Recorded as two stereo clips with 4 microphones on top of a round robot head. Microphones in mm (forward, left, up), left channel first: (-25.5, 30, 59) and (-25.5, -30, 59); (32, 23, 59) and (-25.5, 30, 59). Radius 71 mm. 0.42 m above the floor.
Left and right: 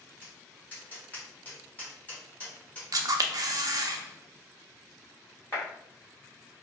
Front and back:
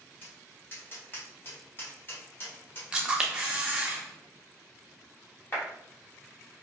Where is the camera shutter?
110° right, 0.5 m.